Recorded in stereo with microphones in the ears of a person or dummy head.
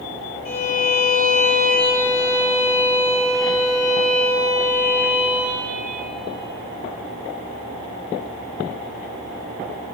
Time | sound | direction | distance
0.5 | a violin | 50° left (ahead or behind) | 3.5 m